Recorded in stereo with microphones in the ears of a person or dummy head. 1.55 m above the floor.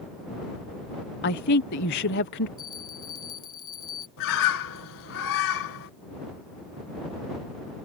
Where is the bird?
80° left.